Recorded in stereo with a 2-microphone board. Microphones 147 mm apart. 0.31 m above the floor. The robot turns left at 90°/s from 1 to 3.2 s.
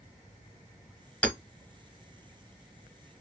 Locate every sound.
1.2 s hammering: 5° left (ahead or behind), 0.8 m; by 1.4 s 20° left (ahead or behind), 0.8 m